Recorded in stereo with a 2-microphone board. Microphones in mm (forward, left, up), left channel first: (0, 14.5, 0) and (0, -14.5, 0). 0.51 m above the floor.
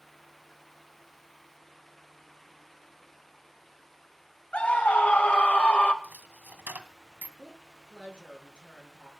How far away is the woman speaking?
About 6.5 m.